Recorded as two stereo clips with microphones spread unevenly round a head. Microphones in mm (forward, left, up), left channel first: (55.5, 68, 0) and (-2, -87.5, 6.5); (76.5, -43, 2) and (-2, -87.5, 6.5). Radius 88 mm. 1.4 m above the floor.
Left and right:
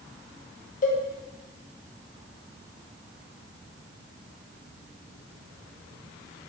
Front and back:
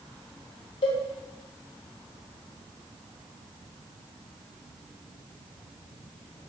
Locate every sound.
0.8 s a cowbell: 30° left, 0.6 m